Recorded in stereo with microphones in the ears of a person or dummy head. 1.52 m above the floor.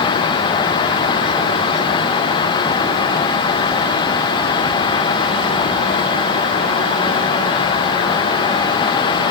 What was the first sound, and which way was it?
Only background noise.